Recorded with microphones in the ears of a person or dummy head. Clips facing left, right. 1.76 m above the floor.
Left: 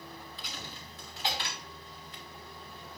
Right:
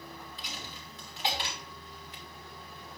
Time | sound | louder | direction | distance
0.4 | a dropped coin | even | 20° right (ahead or behind) | 2.5 m